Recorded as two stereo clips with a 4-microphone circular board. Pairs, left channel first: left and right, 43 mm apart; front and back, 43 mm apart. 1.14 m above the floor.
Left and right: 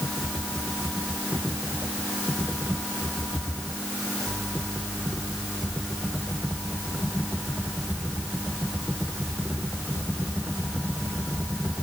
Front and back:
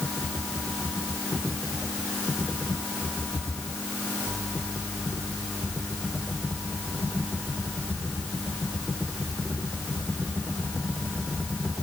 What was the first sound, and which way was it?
Only background noise.